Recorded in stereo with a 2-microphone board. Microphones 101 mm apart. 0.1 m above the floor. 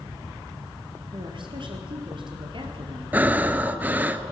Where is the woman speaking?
55° right (ahead or behind), 2.5 m.